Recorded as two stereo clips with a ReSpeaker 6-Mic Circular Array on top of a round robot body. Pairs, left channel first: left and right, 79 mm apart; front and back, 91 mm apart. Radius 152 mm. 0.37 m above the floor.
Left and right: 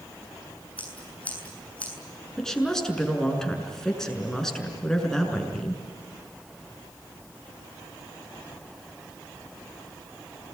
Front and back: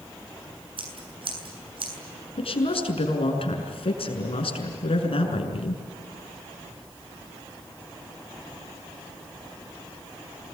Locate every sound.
0.8 s scissors: 165° left, 7.5 m
2.4 s a woman speaking: 10° left, 6 m